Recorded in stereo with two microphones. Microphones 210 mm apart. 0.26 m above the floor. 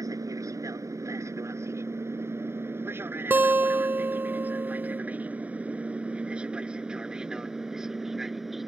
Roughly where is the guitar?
Centre.